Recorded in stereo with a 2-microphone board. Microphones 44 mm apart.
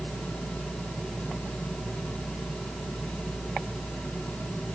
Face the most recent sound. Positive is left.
No sound to turn to.